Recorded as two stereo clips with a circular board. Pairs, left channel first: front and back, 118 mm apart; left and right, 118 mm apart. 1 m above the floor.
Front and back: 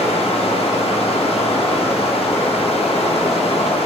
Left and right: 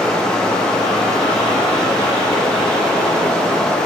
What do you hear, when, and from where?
0.0 s running water: 10° left, 0.9 m